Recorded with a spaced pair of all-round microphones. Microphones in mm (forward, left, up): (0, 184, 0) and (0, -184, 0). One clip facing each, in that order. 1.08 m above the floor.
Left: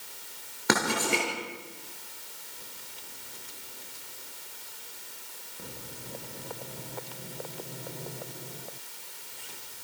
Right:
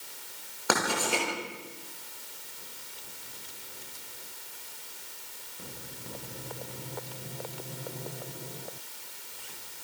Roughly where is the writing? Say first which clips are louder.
Left 2 dB; left.